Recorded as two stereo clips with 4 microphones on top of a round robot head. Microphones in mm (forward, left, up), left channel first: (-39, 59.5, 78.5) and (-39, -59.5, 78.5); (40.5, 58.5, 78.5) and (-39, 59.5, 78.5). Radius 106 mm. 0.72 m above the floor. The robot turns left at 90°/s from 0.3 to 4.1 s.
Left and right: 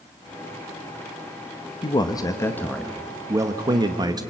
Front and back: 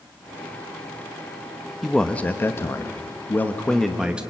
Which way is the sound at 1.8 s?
95° left.